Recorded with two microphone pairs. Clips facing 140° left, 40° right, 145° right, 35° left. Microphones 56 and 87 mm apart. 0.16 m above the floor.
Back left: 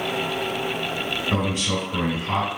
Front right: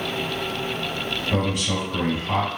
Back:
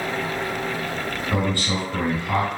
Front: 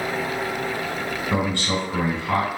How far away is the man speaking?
About 1.8 m.